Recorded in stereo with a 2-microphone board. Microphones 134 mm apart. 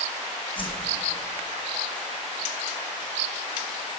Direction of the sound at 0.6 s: 40° left (ahead or behind).